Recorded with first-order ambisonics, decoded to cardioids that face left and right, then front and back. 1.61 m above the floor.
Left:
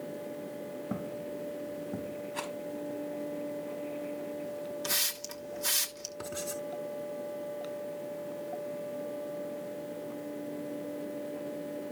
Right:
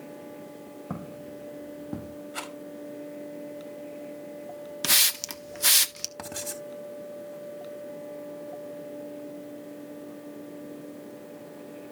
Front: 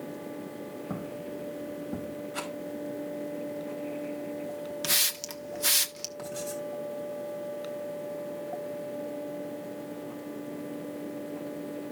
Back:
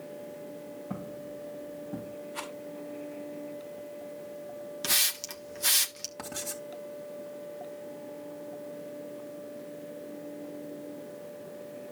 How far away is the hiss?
About 1.0 m.